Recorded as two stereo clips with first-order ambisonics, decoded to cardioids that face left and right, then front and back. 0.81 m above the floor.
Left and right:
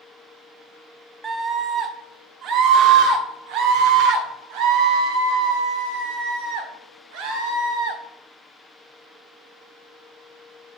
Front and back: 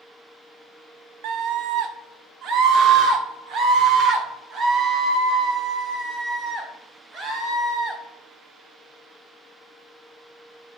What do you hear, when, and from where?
1.2 s a scream: 160° right, 1.1 m; by 8.0 s 110° right, 4 m